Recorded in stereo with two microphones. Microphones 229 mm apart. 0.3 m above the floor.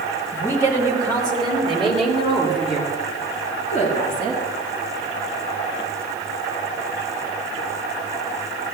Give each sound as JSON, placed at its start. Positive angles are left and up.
{"t": 0.3, "sound": "a woman speaking", "side_deg": -10, "distance_m": 5.0}